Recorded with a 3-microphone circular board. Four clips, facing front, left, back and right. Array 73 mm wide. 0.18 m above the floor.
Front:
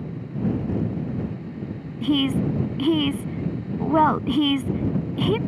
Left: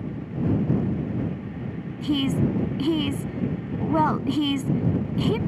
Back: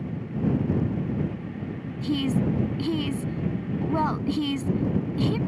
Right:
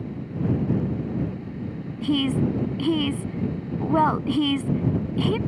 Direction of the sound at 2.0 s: 10° right.